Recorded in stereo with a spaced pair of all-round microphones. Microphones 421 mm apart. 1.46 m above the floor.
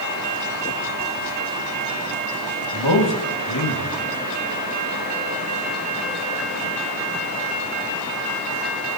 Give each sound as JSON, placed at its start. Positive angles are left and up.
{"t": 2.7, "sound": "a man speaking", "side_deg": 80, "distance_m": 2.0}